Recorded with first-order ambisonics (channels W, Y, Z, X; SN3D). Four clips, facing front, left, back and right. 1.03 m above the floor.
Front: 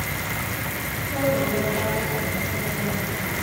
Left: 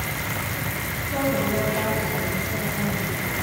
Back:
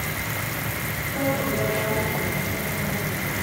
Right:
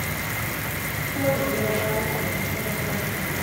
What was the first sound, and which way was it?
A woman speaking, 70° left.